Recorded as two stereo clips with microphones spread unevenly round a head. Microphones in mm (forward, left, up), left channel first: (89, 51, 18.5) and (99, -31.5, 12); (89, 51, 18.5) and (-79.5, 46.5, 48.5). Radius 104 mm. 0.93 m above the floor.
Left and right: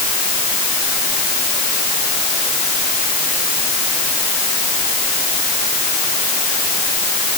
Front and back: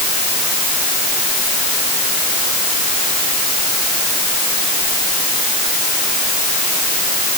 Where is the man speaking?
I don't hear a man speaking.